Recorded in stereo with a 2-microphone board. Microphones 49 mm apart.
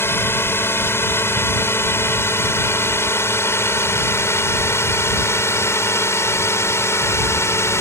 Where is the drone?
55° left (ahead or behind); by 7.8 s 65° left (ahead or behind).